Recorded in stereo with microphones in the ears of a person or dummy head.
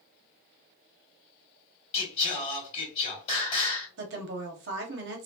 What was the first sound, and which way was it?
Singing, 35° left (ahead or behind).